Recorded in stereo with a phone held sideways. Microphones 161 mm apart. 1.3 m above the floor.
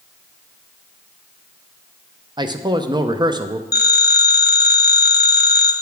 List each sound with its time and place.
2.4 s a man speaking: 25° right (ahead or behind), 0.5 m
3.7 s a phone ringing: 75° left (ahead or behind), 0.8 m